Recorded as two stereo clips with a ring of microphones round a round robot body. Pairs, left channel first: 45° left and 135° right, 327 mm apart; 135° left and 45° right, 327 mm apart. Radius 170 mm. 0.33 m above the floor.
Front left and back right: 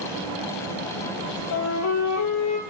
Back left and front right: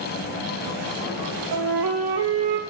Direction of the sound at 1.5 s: Straight ahead.